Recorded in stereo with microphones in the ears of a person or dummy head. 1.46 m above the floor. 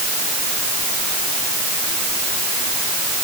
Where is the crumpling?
No crumpling in this recording.